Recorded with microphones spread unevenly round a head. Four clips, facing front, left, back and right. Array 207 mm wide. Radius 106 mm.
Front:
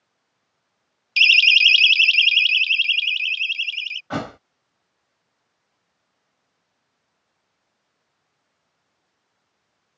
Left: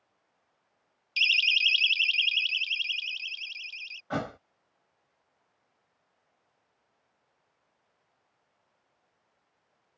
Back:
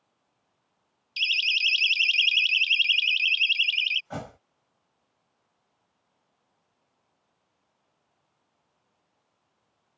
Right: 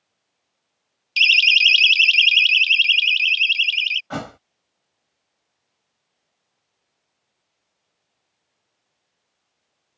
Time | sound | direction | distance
1.2 | a siren | 35° right | ?
4.1 | a thud | 15° right | ?